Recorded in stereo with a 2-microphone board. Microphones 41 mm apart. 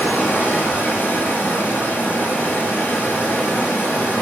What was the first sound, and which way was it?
Running water, 50° left (ahead or behind).